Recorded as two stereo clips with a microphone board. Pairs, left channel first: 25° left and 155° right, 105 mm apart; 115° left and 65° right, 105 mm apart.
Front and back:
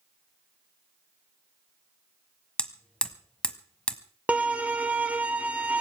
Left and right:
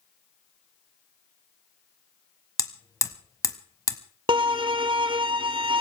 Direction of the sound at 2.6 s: 95° left.